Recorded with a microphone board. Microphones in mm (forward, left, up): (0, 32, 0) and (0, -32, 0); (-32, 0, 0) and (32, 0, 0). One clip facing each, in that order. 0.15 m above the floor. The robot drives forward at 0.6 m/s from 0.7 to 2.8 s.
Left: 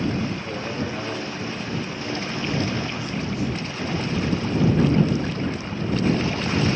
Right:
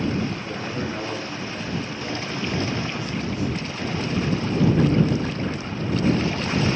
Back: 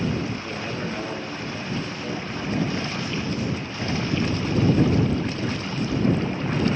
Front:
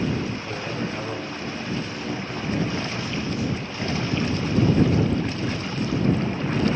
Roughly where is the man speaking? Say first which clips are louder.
Even, even; right.